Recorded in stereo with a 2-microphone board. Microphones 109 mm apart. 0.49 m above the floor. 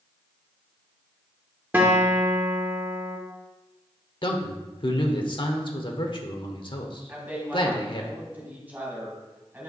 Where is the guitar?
20° right (ahead or behind), 1.2 m.